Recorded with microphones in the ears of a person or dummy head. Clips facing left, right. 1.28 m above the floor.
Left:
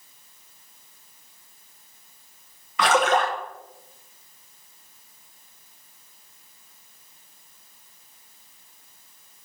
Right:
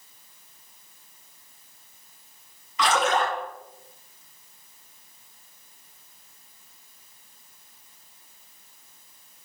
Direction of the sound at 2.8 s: 50° left (ahead or behind).